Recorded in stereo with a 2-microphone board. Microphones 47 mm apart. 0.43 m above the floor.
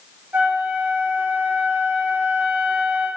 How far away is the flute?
About 5.5 m.